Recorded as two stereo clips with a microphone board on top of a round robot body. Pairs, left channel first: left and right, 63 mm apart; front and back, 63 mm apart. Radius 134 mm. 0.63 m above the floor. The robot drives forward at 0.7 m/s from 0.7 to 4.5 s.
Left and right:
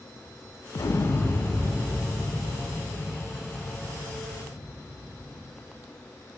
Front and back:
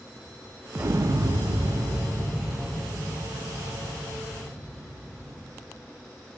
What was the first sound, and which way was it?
An explosion, 125° left.